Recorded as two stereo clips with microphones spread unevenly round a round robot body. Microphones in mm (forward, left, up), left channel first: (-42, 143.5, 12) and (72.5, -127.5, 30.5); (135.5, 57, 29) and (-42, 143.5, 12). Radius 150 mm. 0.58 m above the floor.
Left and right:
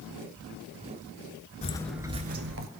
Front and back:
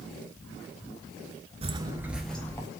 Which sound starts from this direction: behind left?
Footsteps, at 1.6 s.